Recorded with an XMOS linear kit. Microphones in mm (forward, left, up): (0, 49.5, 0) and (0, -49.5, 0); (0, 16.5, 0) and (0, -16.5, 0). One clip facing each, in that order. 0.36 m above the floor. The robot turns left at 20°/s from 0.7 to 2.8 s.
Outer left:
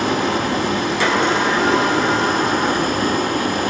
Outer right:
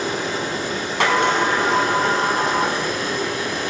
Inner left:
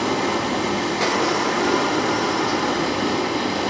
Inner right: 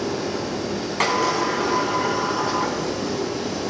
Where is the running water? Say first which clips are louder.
Outer left 5 dB, inner left 4 dB; 100° left, 1.0 m; by 3.7 s 55° left, 1.0 m.